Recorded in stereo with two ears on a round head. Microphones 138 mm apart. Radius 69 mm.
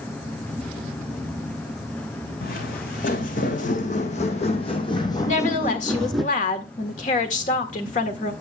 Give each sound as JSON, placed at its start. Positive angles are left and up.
{"t": 2.4, "sound": "footsteps", "side_deg": 65, "distance_m": 2.5}
{"t": 5.2, "sound": "a woman speaking", "side_deg": 55, "distance_m": 1.6}